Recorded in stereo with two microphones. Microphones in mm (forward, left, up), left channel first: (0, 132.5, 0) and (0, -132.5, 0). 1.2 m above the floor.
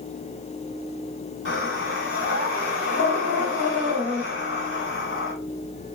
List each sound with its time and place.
1.4 s breathing: 50° left (ahead or behind), 1.6 m